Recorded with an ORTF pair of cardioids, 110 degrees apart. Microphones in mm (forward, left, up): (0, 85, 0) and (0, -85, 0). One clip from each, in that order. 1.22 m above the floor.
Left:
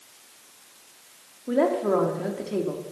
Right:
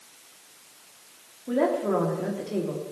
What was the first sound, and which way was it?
A woman speaking, 15° left.